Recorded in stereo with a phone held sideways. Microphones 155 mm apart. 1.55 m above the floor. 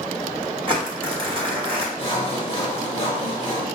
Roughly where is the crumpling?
Right.